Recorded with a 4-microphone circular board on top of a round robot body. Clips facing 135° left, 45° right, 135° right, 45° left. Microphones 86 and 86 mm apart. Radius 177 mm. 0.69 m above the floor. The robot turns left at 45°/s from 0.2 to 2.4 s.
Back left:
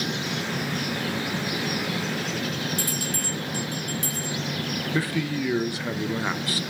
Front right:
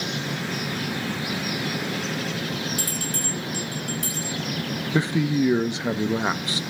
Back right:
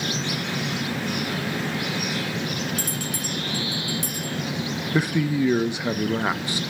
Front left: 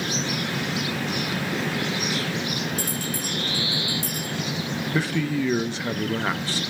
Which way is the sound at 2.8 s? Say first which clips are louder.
Even, front left 1 dB; 160° right.